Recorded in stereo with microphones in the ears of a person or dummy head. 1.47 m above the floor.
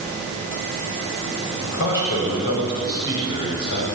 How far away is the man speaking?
About 8 m.